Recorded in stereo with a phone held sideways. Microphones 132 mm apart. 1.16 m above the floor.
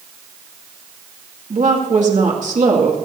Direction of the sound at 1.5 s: 65° right (ahead or behind).